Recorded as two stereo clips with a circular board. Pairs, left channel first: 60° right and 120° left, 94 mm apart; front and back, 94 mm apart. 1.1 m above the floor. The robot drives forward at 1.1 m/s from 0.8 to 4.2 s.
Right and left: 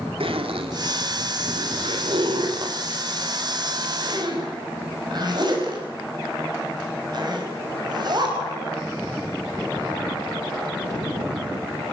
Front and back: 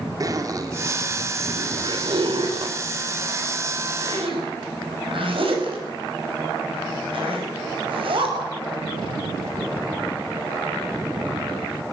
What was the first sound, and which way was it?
A zipper, 130° left.